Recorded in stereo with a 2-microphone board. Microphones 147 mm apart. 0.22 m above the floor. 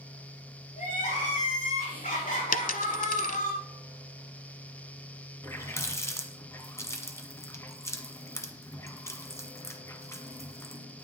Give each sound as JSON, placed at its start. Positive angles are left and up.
{"t": 0.8, "sound": "crying", "side_deg": 65, "distance_m": 6.5}
{"t": 2.5, "sound": "a dropped coin", "side_deg": 70, "distance_m": 0.7}
{"t": 5.4, "sound": "a running tap", "side_deg": 20, "distance_m": 1.3}